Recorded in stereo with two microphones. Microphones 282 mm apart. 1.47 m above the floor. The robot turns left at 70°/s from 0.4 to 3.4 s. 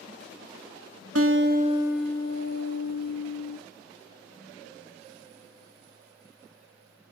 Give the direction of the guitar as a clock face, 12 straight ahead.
4 o'clock.